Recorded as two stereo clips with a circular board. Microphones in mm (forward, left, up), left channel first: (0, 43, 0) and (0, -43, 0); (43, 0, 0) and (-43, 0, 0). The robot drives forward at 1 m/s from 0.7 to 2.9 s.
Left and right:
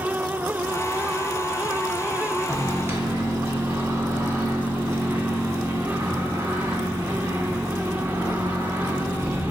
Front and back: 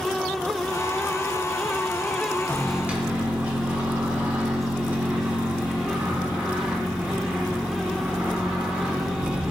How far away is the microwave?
About 0.6 m.